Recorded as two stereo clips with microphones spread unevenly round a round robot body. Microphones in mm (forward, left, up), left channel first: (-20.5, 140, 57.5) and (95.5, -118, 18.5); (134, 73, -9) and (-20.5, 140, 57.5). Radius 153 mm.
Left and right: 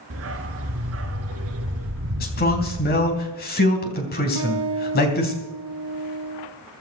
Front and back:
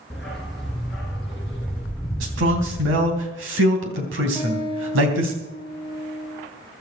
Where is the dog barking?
110° right, 1.5 m.